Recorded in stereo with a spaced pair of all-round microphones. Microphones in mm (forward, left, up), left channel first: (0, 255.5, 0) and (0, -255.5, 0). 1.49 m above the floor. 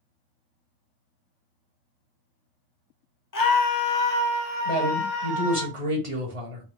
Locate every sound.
3.3 s a scream: 40° left (ahead or behind), 0.6 m; by 5.7 s 45° left (ahead or behind), 1.6 m
4.7 s a man speaking: 80° right, 1.3 m